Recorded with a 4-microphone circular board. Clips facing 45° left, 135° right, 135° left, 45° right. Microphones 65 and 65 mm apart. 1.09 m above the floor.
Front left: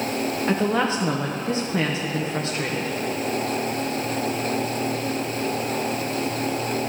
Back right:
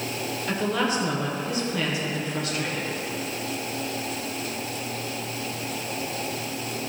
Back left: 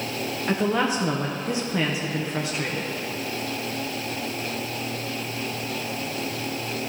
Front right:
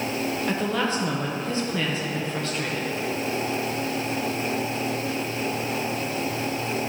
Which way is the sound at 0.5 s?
70° left.